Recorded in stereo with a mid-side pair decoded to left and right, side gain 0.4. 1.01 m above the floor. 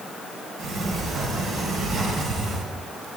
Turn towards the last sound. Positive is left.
turn(degrees=-70)